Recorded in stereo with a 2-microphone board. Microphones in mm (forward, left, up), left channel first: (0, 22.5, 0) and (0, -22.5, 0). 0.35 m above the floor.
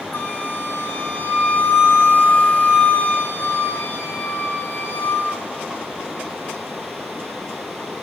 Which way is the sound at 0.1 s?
55° left (ahead or behind).